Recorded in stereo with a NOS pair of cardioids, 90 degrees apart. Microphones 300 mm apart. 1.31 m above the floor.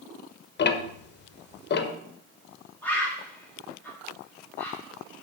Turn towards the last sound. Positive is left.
turn(degrees=5)